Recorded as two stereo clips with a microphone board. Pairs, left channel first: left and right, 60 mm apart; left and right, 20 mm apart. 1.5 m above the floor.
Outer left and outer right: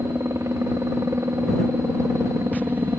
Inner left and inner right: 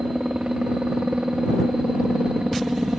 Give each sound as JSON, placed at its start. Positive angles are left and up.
{"t": 0.0, "sound": "a helicopter", "side_deg": -50}